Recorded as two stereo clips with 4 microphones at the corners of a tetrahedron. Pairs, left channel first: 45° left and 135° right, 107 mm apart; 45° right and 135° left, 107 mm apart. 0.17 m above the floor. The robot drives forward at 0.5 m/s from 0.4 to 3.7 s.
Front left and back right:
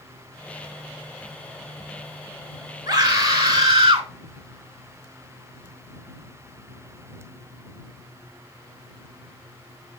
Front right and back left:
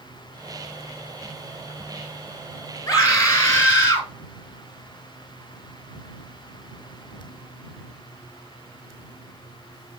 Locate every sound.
2.9 s a scream: 95° right, 2.5 m; by 4.1 s 105° right, 2.5 m